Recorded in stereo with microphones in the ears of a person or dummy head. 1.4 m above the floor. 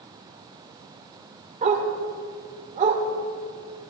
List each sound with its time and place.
1.6 s a dog barking: 35° right (ahead or behind), 1.4 m